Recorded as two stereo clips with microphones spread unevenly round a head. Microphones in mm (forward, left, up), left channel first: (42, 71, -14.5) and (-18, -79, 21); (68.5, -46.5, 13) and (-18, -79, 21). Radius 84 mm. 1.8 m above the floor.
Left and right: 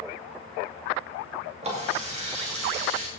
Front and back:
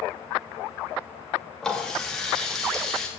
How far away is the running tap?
About 2.5 m.